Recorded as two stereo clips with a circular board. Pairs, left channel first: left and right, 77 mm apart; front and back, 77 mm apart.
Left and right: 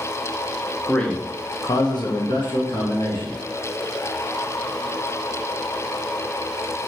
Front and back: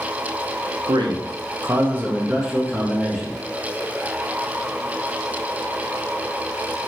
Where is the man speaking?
175° left, 0.6 m; by 3.4 s 85° left, 1.3 m.